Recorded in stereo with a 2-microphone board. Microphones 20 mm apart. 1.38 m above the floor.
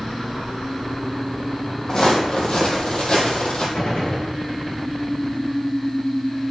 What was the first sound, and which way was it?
Footsteps, 35° left (ahead or behind).